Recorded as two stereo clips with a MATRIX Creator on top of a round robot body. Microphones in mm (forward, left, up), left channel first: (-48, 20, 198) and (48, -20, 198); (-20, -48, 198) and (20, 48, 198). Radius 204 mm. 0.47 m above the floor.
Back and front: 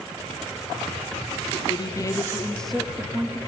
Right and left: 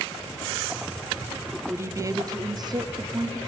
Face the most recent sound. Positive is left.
turn(degrees=30)